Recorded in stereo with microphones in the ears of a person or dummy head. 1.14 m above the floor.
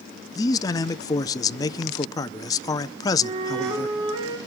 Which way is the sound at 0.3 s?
15° left (ahead or behind).